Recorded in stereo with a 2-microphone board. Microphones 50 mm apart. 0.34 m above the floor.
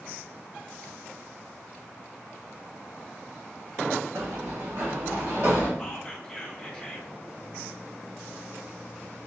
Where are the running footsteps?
70° right (ahead or behind), 0.9 m; by 5.7 s 60° right (ahead or behind), 2.5 m.